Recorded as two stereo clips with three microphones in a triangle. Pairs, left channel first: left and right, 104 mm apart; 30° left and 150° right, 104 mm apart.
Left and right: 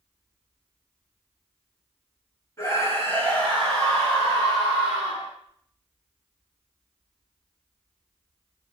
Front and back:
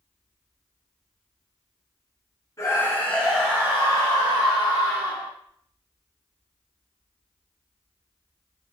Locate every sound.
2.6 s a scream: 60° left, 1.7 m; by 5.3 s 165° right, 3 m